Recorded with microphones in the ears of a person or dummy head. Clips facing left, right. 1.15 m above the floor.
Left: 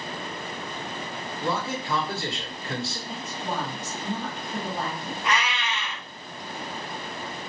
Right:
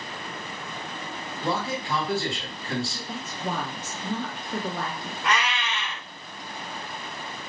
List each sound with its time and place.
1.4 s a man speaking: 30° right (ahead or behind), 1.7 m
3.1 s a woman speaking: 55° right (ahead or behind), 0.9 m
5.2 s a cat meowing: 55° right (ahead or behind), 1.4 m